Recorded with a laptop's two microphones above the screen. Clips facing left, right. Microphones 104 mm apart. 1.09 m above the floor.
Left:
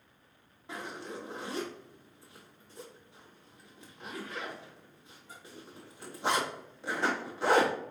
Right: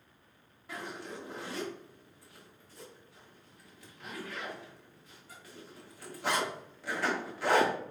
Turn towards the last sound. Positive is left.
turn(degrees=25)  # may be behind; listen again after turning